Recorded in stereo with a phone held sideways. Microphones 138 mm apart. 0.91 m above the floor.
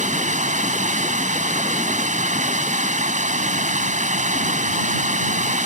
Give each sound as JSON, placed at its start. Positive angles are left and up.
{"t": 0.0, "sound": "running water", "side_deg": -65}